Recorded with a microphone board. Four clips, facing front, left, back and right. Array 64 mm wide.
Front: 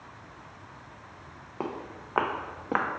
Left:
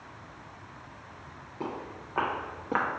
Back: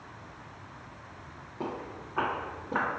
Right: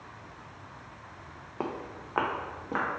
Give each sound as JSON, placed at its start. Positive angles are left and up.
{"t": 1.6, "sound": "footsteps", "azimuth_deg": -50, "distance_m": 0.8}